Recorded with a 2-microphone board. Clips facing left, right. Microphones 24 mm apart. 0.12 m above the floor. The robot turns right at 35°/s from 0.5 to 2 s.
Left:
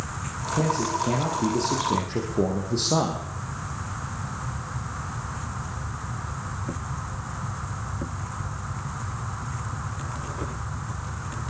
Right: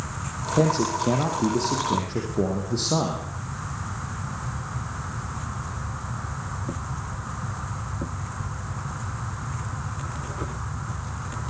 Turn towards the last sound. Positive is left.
turn(degrees=5)